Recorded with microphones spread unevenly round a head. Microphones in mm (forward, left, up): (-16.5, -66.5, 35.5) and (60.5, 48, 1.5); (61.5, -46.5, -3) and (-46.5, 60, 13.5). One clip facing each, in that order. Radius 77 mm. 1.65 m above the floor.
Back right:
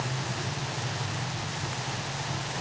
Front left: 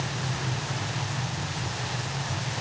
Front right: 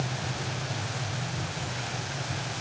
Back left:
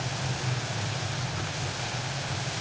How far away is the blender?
I don't hear a blender.